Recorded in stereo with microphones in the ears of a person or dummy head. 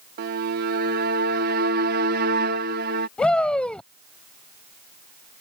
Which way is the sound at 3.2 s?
5° left (ahead or behind).